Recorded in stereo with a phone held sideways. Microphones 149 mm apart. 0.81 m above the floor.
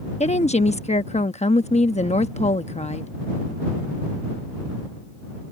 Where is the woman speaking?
50° left (ahead or behind).